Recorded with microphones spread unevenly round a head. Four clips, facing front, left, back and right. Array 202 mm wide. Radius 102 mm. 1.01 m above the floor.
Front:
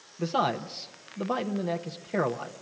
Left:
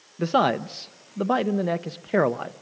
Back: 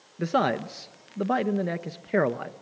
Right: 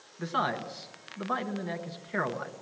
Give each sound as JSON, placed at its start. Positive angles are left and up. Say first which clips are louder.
{"t": 0.2, "sound": "a man speaking", "louder": "left 9 dB, back 3 dB", "azimuth_deg": 120, "distance_m": 0.7}